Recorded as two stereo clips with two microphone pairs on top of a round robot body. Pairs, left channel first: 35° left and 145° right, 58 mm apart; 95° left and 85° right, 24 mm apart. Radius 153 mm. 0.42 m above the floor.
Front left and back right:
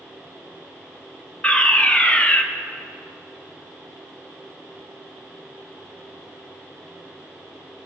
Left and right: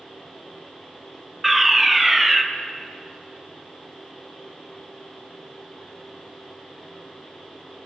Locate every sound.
1.4 s a fire alarm: 5° left, 2 m